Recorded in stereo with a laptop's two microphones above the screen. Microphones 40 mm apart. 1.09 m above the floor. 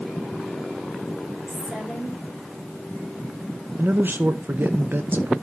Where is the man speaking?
60° right (ahead or behind), 0.7 m.